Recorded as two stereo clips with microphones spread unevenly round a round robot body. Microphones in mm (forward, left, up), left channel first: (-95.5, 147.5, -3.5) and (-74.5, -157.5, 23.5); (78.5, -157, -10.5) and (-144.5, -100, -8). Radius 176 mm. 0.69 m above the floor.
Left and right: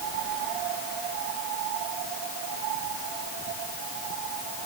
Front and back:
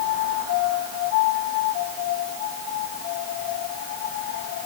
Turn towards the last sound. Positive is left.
No sound to turn to.